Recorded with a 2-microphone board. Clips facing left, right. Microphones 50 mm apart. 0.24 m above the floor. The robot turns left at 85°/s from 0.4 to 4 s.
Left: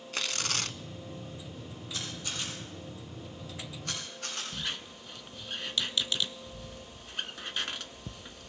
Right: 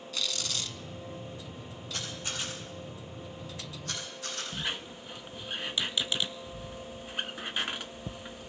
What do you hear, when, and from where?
0.1 s tearing paper: 135° left, 0.5 m; by 0.8 s 100° left, 0.5 m
1.9 s a camera shutter: 55° right (ahead or behind), 7 m; by 4.4 s 60° left (ahead or behind), 7 m
4.5 s a squeak: 15° right (ahead or behind), 0.6 m